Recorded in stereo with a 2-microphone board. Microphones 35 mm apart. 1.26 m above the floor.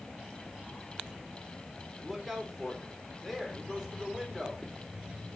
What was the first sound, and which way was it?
A man speaking, 5° left (ahead or behind).